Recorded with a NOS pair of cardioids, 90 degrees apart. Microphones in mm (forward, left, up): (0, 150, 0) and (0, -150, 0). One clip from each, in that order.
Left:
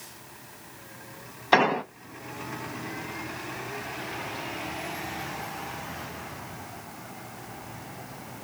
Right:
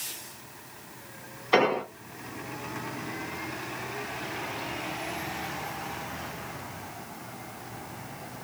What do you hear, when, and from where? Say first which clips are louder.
1.5 s an explosion: left 2 dB; 65° left, 1.0 m